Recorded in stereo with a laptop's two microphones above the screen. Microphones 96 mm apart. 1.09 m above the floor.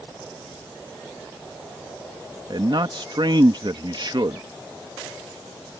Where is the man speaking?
55° right (ahead or behind).